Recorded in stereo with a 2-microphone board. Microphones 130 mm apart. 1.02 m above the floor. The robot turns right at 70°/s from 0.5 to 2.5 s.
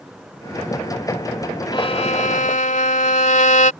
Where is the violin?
40° left; by 3.7 s 95° left.